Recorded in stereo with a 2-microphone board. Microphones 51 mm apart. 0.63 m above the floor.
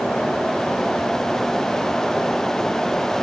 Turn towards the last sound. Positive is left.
No sound to turn to.